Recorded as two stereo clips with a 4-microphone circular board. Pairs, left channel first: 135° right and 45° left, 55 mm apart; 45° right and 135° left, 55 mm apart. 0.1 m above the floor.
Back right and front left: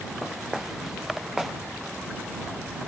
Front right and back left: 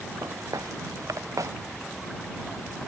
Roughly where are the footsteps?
Behind left.